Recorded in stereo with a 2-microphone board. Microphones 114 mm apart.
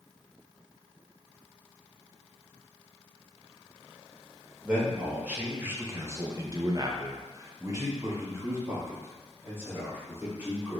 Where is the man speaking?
10° right (ahead or behind), 1.1 m; by 10.8 s 15° right (ahead or behind), 2.5 m.